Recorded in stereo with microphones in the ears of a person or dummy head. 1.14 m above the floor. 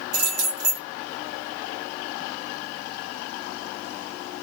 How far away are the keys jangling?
About 1.2 m.